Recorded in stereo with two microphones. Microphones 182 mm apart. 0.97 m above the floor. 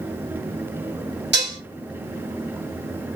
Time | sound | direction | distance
1.3 | dishes clattering | 75° right (ahead or behind) | 2.0 m